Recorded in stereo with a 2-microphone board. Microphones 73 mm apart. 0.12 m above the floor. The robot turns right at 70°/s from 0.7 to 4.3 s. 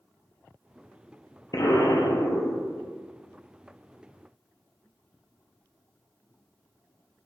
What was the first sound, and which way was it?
An explosion, 65° left.